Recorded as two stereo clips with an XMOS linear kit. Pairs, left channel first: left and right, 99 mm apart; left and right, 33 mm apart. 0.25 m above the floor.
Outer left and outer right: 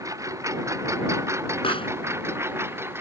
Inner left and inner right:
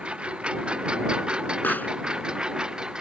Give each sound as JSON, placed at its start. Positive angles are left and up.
{"t": 0.0, "sound": "a lawn mower", "side_deg": -35}
{"t": 1.6, "sound": "a pop", "side_deg": 70}